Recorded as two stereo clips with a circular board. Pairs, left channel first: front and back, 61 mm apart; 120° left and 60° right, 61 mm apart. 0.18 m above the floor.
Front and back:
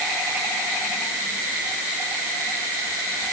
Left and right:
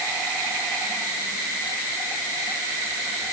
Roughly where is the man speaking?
I don't hear a man speaking.